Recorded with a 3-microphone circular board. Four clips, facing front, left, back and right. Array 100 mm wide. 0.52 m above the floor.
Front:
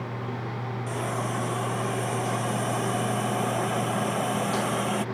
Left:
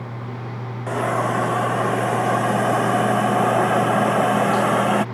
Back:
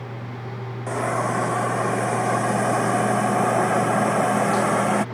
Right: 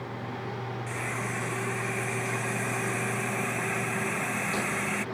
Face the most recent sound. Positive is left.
turn(degrees=120)